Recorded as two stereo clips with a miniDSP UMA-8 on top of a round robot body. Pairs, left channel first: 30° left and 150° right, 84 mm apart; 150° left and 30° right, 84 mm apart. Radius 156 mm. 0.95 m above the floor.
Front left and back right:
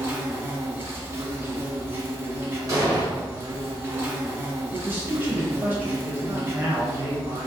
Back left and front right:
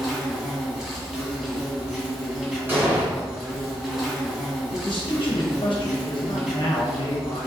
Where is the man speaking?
150° left, 0.7 m.